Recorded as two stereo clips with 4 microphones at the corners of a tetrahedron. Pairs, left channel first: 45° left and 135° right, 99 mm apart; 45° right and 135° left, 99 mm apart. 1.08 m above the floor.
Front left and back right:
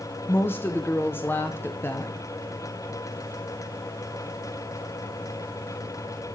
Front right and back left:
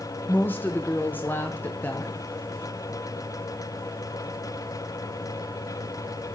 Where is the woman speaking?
5° left, 0.7 m.